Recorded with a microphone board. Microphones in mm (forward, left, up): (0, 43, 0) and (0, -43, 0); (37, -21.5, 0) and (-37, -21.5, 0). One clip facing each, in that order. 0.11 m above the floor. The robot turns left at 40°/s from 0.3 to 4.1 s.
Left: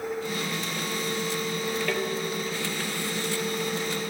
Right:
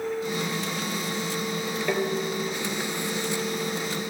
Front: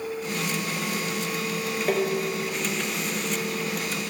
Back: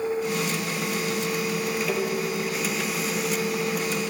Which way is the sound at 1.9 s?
20° right.